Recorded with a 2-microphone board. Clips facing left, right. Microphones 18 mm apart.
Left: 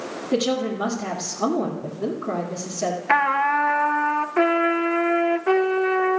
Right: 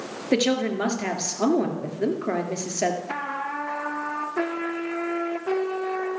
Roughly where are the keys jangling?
No keys jangling in this recording.